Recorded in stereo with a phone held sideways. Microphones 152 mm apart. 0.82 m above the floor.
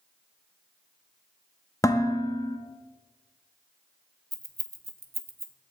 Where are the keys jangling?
80° right, 0.8 m.